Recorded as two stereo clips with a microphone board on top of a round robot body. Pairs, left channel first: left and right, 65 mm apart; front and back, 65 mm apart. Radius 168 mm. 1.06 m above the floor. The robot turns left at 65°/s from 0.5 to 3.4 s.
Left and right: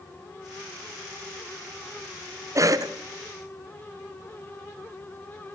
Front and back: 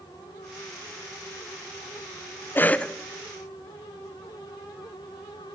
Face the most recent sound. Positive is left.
turn(degrees=-110)